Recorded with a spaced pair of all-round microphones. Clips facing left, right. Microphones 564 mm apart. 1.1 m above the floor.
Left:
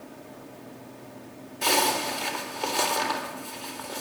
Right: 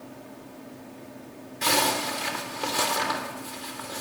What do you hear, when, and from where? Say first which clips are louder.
1.6 s a zipper: even; 40° right (ahead or behind), 3.5 m